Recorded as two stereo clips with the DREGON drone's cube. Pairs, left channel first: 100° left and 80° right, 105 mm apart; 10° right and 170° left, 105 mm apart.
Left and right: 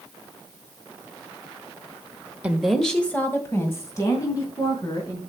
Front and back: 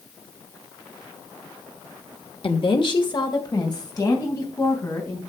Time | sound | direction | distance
2.4 | a woman speaking | 5° right | 1.2 m